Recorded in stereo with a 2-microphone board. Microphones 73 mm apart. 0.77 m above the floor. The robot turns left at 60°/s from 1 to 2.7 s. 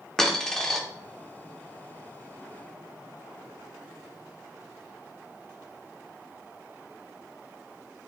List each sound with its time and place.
0.2 s a dropped coin: 5° left (ahead or behind), 0.6 m